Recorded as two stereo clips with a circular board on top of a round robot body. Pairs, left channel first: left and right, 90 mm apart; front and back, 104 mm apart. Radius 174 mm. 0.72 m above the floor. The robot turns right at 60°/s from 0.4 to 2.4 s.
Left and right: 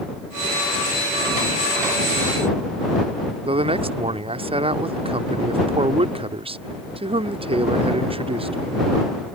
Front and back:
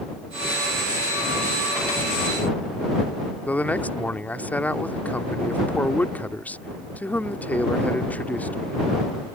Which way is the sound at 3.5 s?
75° right.